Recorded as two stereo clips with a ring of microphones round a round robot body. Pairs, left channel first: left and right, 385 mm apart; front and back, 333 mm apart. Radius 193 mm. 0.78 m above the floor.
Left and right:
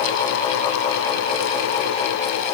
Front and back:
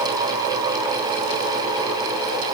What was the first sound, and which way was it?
Only background noise.